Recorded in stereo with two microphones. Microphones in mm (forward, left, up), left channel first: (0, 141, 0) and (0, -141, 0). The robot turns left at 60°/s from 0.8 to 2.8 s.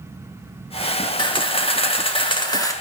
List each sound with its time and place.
1.2 s a camera shutter: 15° left (ahead or behind), 0.7 m; by 2.7 s 10° left (ahead or behind), 0.7 m